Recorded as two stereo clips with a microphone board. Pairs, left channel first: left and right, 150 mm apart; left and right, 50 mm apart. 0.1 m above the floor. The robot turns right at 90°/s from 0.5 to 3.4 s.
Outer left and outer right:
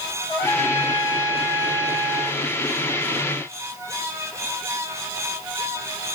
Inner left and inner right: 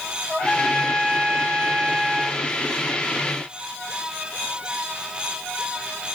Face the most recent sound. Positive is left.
turn(degrees=65)